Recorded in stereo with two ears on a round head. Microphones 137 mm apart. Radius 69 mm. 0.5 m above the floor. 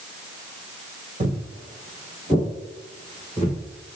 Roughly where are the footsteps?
Right.